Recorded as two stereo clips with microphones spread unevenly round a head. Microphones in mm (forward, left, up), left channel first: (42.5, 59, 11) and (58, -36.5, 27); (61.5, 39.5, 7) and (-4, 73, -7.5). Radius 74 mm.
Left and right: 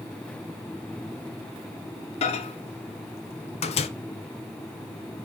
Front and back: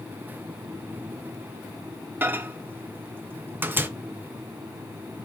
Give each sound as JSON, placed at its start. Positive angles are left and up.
{"t": 2.2, "sound": "a microwave", "azimuth_deg": 85, "distance_m": 0.6}